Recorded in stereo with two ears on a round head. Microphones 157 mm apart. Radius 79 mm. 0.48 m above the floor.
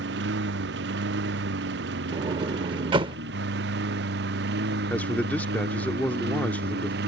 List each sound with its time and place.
0.0 s a lawn mower: 75° right (ahead or behind); by 7.1 s 65° right (ahead or behind)
2.1 s a sliding door: 30° right (ahead or behind)
4.9 s a man speaking: 10° left (ahead or behind)